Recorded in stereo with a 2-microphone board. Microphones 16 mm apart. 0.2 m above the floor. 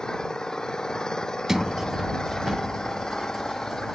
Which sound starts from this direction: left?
An engine running, at 0.0 s.